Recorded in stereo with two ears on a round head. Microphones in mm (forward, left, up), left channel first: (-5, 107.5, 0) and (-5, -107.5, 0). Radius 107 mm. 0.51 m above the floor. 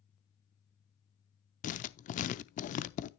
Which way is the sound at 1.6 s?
30° left (ahead or behind).